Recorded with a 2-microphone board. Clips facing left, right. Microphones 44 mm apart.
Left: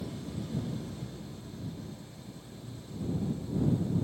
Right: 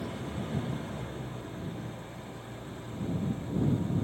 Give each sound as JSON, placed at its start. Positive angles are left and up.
{"t": 0.0, "sound": "an engine running", "side_deg": -45}